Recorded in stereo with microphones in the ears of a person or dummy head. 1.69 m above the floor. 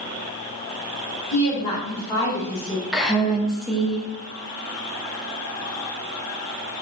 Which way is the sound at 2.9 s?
Centre (ahead or behind).